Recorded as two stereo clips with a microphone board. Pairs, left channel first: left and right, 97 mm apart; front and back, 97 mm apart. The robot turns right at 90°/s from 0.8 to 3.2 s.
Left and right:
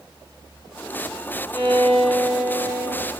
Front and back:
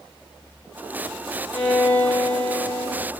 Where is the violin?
90° left, 2 m; by 3.1 s 130° right, 2 m.